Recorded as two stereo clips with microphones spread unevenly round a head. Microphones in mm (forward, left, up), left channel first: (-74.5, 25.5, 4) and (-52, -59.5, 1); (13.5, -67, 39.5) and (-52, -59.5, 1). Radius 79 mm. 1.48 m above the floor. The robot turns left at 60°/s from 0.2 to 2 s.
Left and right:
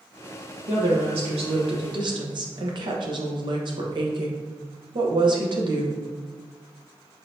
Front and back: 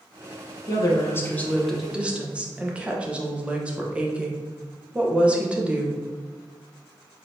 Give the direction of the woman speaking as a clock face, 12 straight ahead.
1 o'clock.